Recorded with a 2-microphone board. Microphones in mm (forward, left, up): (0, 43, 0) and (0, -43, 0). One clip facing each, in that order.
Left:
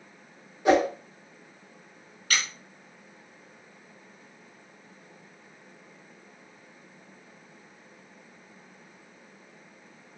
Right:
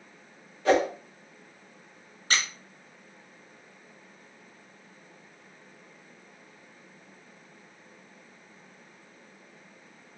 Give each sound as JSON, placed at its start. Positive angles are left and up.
{"t": 0.7, "sound": "a whoosh", "side_deg": 20, "distance_m": 0.9}
{"t": 2.3, "sound": "a squeak", "side_deg": -30, "distance_m": 0.7}